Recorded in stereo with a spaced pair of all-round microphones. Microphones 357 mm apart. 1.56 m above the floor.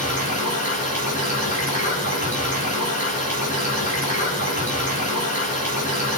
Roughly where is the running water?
Left.